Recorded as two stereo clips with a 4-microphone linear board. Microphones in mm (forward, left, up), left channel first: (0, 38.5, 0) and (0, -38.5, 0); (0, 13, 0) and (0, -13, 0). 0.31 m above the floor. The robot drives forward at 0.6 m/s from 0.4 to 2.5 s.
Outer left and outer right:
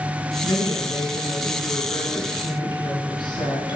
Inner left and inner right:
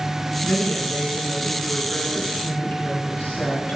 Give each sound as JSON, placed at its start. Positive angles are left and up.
{"t": 0.4, "sound": "a woman speaking", "side_deg": 70, "distance_m": 3.5}